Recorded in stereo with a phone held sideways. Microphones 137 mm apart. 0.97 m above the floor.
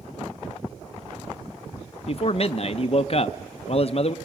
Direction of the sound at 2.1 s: 45° left (ahead or behind).